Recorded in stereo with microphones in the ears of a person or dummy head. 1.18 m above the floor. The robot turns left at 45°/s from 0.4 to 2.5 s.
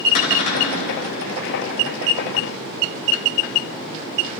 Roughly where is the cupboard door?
Left.